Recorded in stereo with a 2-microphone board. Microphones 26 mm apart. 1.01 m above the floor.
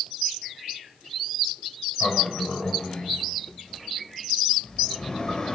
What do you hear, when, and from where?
2.0 s a sliding door: 30° left (ahead or behind), 6 m